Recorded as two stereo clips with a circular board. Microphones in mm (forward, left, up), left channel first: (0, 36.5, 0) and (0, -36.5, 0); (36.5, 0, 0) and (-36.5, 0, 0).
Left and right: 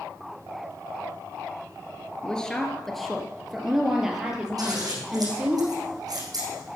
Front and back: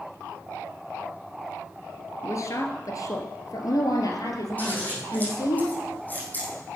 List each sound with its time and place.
2.2 s a woman speaking: 15° left, 2 m; by 5.6 s 15° right, 4 m
4.6 s scissors: 60° right, 5.5 m